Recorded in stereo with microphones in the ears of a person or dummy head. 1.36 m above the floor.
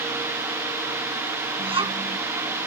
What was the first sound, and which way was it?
A child speaking, 30° right (ahead or behind).